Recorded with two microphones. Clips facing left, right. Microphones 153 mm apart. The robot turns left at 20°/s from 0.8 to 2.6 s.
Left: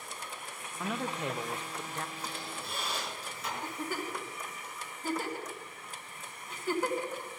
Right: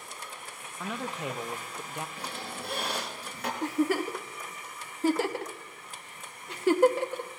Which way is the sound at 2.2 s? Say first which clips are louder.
Right 2 dB; 70° right (ahead or behind).